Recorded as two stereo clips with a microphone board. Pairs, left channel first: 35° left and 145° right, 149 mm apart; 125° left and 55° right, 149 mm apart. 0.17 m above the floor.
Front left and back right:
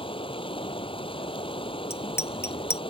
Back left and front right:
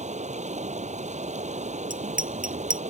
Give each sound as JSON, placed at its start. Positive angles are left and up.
{"t": 0.0, "sound": "running water", "azimuth_deg": -20}
{"t": 1.9, "sound": "a bicycle bell", "azimuth_deg": -40}